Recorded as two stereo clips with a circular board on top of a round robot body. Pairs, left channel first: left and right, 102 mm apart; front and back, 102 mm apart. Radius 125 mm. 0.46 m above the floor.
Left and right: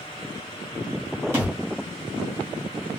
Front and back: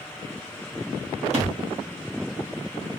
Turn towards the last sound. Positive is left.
turn(degrees=-160)